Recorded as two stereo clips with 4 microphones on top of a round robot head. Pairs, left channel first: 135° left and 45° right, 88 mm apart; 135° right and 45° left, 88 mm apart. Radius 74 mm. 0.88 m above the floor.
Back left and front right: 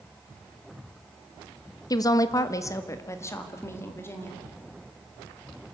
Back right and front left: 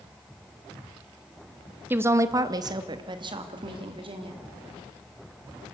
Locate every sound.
1.9 s a woman speaking: 110° left, 1.0 m; by 4.4 s 70° left, 3 m